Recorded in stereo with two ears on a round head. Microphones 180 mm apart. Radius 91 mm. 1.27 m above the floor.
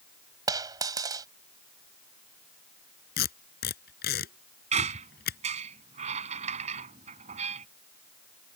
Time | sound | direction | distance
0.5 | a dropped coin | 20° right (ahead or behind) | ?
3.2 | tape being pulled | 55° left (ahead or behind) | ?
4.7 | a squeak | 35° right (ahead or behind) | ?